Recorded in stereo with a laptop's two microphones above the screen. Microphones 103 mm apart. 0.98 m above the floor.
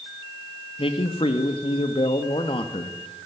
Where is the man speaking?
60° left (ahead or behind), 2 m.